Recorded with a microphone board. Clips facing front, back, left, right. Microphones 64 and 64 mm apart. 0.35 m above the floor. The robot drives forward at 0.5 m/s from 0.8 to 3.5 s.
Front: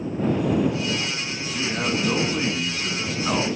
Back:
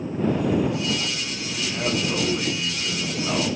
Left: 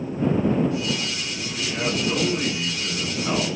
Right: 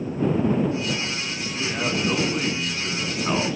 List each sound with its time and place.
1.5 s a man speaking: 30° right, 4.5 m; by 3.6 s 40° right, 3.5 m